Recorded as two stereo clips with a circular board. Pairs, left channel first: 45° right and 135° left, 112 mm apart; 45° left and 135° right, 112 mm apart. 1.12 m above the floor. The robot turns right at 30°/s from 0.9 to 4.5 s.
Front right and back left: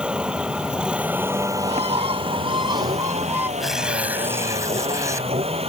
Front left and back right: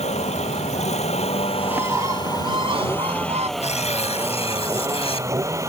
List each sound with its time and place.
0.0 s a vehicle: 55° left; by 5.7 s 160° left
1.6 s a bird: 150° left; by 3.5 s 150° right
3.6 s tearing paper: 45° left; by 5.3 s 70° left